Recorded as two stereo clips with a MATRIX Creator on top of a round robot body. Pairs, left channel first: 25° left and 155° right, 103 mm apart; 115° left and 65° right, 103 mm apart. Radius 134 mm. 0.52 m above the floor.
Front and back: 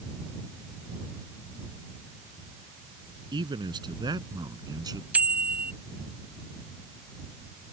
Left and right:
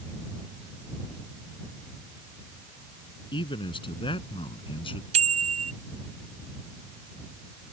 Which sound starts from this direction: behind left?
A man speaking, at 3.3 s.